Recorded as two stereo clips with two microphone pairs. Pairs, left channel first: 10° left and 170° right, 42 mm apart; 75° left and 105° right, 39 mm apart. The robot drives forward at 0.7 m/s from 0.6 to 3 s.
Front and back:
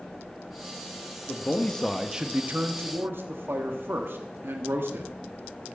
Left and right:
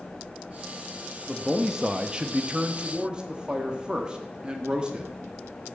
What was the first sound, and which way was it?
A man speaking, 15° right.